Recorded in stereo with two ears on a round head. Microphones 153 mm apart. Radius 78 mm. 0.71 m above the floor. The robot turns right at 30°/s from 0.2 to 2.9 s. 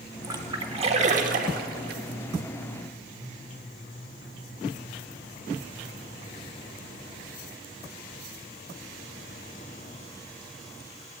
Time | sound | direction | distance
0.2 | a splash | 20° right (ahead or behind) | 1.2 m